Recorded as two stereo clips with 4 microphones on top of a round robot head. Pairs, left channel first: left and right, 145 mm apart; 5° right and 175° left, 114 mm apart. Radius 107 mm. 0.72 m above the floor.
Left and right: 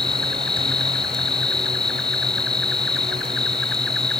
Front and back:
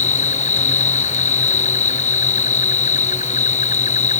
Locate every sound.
0.0 s an insect: 5° left